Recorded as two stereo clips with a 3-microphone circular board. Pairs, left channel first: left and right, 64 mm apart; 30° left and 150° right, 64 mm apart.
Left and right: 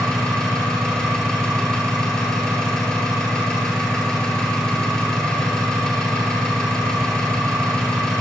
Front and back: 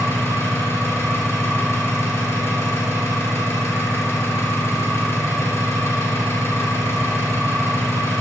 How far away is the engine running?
About 1.8 m.